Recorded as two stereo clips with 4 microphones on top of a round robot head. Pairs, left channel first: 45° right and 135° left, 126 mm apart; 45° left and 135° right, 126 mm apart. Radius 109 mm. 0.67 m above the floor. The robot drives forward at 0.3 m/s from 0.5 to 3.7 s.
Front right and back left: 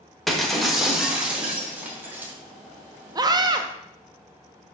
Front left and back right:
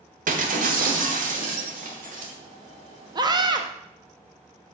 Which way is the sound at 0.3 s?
135° right.